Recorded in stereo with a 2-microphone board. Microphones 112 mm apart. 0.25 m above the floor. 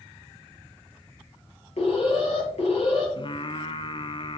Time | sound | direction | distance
1.8 | an alarm | 75° left (ahead or behind) | 5 m
3.2 | singing | 50° left (ahead or behind) | 0.7 m